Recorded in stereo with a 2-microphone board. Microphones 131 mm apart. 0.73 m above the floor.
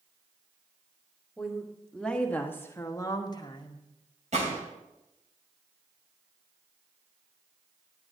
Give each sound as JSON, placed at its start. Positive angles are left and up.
{"t": 1.4, "sound": "a woman speaking", "side_deg": 0, "distance_m": 1.6}
{"t": 4.3, "sound": "a gunshot", "side_deg": -60, "distance_m": 2.5}